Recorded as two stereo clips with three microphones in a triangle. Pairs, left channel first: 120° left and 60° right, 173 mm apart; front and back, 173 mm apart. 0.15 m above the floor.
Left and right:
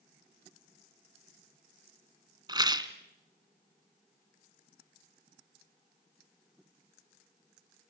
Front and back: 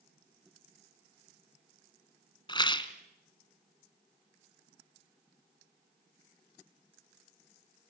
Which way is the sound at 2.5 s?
25° right.